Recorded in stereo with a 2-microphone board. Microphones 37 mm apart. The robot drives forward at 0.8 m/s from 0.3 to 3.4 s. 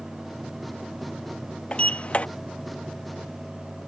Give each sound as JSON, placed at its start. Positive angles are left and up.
{"t": 1.7, "sound": "a sliding door", "side_deg": 35}